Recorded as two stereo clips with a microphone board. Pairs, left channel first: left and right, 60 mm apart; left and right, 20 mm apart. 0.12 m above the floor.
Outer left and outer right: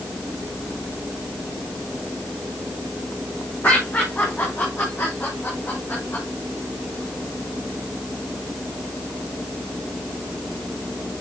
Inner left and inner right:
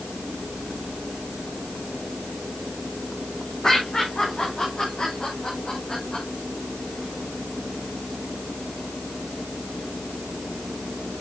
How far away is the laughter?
About 6 m.